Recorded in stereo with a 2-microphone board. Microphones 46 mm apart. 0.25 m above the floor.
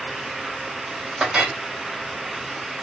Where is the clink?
15° right (ahead or behind), 1.1 m.